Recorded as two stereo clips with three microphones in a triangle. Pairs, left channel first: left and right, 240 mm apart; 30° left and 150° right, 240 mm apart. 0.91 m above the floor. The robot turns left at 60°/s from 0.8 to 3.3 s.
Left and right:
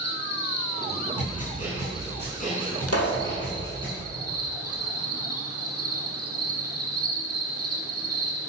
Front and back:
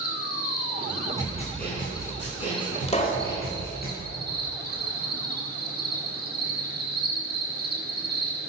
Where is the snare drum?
105° left, 6 m; by 3.9 s 20° right, 6 m.